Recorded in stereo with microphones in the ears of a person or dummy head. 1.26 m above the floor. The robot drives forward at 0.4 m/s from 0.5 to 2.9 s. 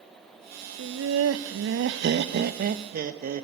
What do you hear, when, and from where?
0.8 s laughter: 85° right, 0.9 m; by 3.5 s 45° right (ahead or behind), 1.2 m